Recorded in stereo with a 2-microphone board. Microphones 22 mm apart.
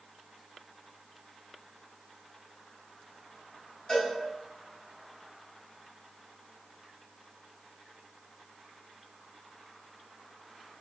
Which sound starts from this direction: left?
A cowbell, at 3.9 s.